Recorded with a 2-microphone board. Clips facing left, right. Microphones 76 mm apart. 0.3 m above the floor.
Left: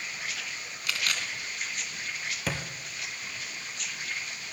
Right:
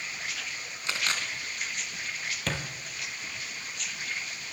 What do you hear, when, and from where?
0.9 s a camera shutter: 30° right (ahead or behind), 3.5 m
2.5 s a thud: 10° left (ahead or behind), 3 m